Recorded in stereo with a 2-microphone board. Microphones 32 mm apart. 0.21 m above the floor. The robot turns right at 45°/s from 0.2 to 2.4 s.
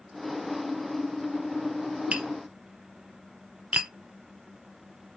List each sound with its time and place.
2.1 s tapping: 40° right (ahead or behind), 0.8 m